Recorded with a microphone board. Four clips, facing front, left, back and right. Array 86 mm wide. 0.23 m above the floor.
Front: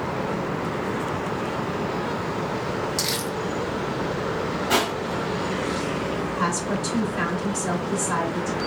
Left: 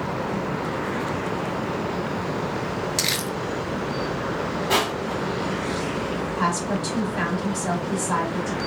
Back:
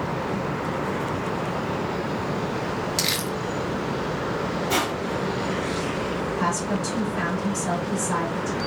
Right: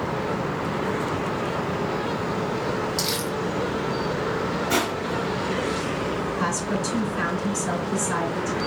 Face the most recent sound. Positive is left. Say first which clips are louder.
# left 1 dB, back 1 dB
turn(degrees=70)